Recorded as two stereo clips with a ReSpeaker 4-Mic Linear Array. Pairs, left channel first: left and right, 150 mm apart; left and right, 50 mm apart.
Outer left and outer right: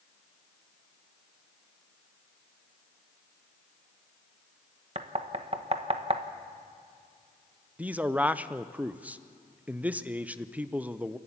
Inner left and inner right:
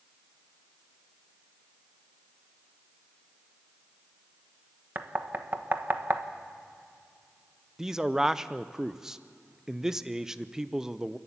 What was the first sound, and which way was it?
Knocking, 40° right (ahead or behind).